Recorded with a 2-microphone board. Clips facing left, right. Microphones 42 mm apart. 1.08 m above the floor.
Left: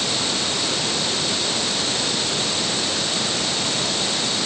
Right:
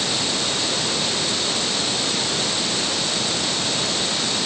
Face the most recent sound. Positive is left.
No sound to turn to.